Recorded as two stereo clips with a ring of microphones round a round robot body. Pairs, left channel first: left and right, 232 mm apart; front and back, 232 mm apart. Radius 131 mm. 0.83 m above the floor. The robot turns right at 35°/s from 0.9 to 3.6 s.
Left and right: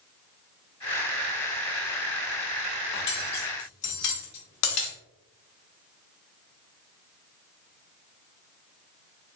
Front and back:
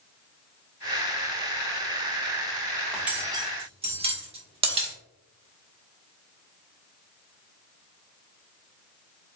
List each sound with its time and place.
2.9 s cutlery clinking: 90° left, 0.9 m; by 5.0 s 115° left, 0.9 m